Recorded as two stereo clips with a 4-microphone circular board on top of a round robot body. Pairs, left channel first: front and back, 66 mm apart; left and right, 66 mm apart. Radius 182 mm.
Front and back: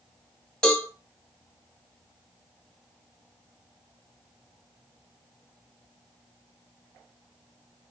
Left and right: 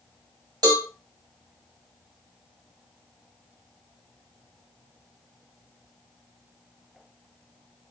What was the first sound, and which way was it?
A cowbell, 80° right.